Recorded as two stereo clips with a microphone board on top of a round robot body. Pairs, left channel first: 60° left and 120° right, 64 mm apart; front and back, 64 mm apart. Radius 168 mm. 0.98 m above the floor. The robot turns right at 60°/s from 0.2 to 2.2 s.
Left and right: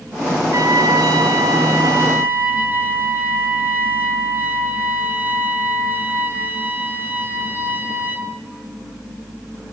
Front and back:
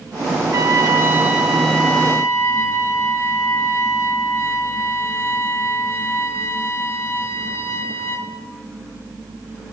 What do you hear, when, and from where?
0.5 s a trumpet: 155° right, 3 m; by 8.3 s 55° right, 3 m